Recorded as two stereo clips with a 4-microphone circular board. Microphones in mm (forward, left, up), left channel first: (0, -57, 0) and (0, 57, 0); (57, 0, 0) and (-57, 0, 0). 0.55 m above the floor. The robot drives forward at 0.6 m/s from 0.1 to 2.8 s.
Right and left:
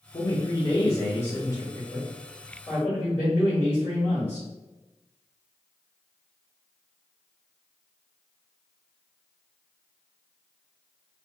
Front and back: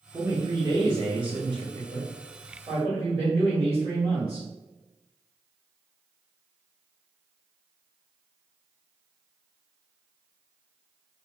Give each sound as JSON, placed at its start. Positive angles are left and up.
{"t": 0.1, "sound": "a man speaking", "azimuth_deg": -125, "distance_m": 1.1}